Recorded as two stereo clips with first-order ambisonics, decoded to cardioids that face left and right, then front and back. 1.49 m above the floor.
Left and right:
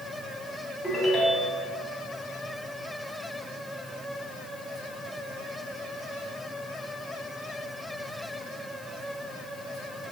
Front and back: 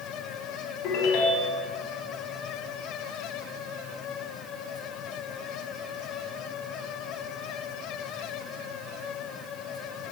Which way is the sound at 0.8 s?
Straight ahead.